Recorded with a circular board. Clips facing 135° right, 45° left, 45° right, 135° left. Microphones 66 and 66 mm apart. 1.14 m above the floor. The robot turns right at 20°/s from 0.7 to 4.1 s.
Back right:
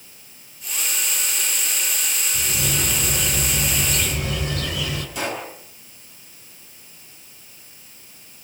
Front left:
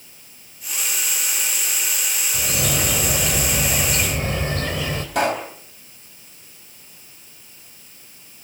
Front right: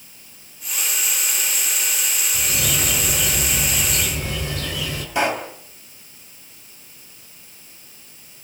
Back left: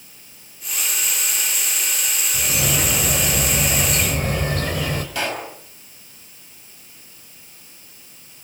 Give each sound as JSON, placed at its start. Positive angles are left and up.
{"t": 2.3, "sound": "a bird", "azimuth_deg": 60, "distance_m": 4.0}
{"t": 5.2, "sound": "a pop", "azimuth_deg": 25, "distance_m": 4.5}